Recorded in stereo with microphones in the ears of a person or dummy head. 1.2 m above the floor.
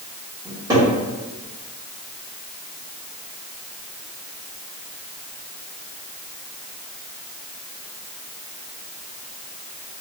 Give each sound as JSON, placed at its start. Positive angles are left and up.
{"t": 0.5, "sound": "a cupboard door", "side_deg": -15, "distance_m": 1.9}